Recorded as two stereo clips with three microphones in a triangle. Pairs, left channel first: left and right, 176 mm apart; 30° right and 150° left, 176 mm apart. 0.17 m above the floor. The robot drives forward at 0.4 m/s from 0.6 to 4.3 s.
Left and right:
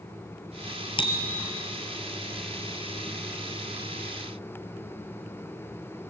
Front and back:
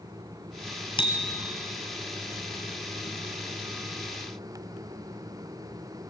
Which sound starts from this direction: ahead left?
A bicycle bell, at 1.0 s.